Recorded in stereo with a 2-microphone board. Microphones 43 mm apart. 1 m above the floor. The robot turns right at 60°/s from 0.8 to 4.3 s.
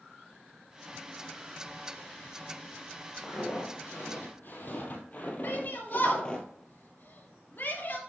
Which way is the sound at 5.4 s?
60° left (ahead or behind).